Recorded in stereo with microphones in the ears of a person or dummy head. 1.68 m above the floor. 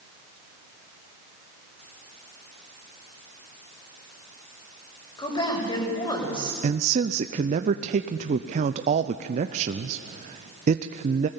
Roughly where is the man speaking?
Right.